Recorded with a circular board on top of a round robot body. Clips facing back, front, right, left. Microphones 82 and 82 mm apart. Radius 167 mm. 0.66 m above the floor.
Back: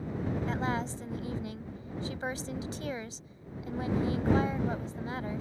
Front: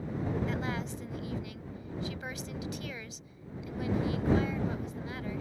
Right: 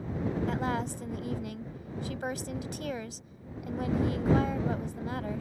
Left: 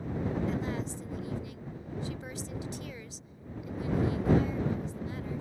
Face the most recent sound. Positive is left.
turn(degrees=-120)